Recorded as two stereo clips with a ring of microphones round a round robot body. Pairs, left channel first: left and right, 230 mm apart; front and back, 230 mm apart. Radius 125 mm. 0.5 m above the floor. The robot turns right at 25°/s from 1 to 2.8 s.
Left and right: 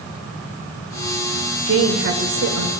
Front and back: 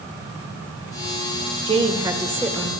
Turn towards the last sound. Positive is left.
turn(degrees=-90)